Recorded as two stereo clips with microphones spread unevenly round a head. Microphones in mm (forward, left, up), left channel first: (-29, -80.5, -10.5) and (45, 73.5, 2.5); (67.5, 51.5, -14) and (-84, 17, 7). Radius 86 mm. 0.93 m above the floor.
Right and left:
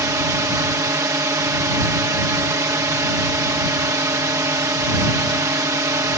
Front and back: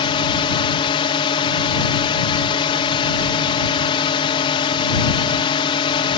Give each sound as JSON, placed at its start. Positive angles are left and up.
{"t": 0.0, "sound": "a drone", "azimuth_deg": 0}